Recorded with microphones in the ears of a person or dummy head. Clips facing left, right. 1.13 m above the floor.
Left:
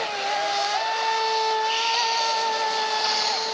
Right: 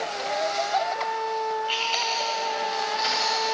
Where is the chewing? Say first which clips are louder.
Left 3 dB; 40° right (ahead or behind), 3 m.